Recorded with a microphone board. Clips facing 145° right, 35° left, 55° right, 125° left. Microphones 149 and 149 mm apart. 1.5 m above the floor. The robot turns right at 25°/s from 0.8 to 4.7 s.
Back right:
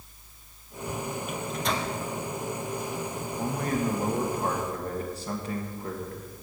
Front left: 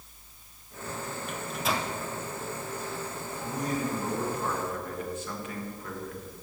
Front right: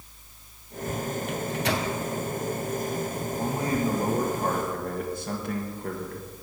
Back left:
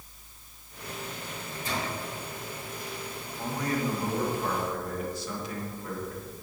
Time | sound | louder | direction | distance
1.3 | a microwave | even, front right 7 dB | 60° right | 0.8 m
3.4 | a man speaking | back right 3 dB, front right 3 dB | 125° right | 1.5 m